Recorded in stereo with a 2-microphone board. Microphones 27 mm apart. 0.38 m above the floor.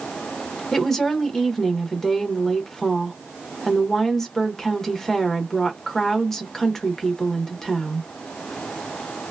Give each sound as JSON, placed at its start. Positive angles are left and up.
{"t": 0.7, "sound": "a woman speaking", "side_deg": 15, "distance_m": 0.8}